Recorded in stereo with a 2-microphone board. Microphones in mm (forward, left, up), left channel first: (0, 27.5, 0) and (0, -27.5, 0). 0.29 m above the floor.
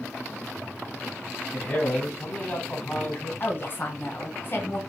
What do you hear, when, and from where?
1.5 s a man speaking: 30° left (ahead or behind), 2.5 m
3.4 s a woman speaking: 40° left (ahead or behind), 1.3 m